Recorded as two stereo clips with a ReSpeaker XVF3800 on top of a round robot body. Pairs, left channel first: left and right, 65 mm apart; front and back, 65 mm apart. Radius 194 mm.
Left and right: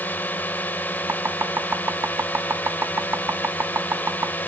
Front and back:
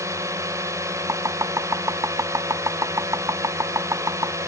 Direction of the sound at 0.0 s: 150° left.